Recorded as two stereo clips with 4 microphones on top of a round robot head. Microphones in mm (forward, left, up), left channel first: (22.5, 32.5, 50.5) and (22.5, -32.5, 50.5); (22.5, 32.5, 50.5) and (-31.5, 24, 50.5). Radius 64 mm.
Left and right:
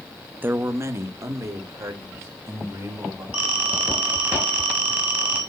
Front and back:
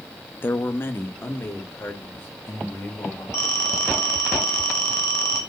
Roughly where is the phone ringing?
Ahead.